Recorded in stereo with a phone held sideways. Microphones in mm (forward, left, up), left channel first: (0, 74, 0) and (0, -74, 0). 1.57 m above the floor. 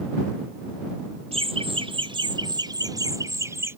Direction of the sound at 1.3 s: 40° right (ahead or behind).